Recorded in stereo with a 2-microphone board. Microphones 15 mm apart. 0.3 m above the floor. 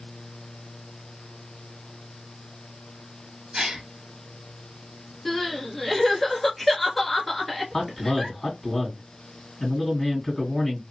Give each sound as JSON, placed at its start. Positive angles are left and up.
{"t": 3.5, "sound": "a gasp", "side_deg": -50, "distance_m": 1.1}
{"t": 5.2, "sound": "crying", "side_deg": 10, "distance_m": 1.0}
{"t": 7.7, "sound": "a man speaking", "side_deg": 25, "distance_m": 1.9}